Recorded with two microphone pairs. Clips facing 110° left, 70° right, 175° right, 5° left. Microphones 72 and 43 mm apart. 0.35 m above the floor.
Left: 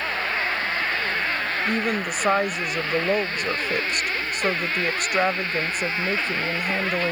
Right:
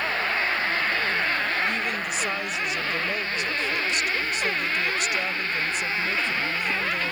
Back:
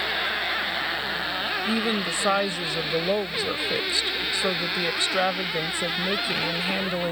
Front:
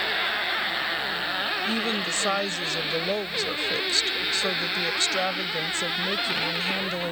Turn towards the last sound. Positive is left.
turn(degrees=115)